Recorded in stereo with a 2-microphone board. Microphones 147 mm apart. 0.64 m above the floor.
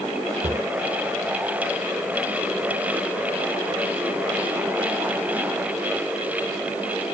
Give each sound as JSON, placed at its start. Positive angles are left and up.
{"t": 0.4, "sound": "a cupboard door", "side_deg": -45, "distance_m": 1.0}